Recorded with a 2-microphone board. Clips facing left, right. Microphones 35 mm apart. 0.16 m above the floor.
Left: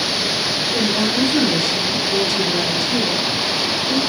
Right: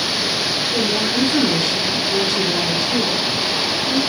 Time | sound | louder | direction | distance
0.7 | a woman speaking | left 1 dB | 5° right (ahead or behind) | 1.4 m